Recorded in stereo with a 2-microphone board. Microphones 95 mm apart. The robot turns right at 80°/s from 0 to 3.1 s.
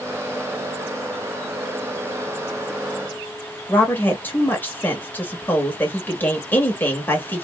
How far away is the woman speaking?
About 1.0 m.